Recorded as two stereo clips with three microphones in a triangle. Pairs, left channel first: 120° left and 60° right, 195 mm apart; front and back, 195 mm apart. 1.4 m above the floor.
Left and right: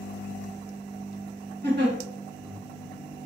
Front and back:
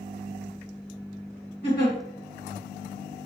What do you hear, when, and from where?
1.6 s a giggle: 30° right, 1.3 m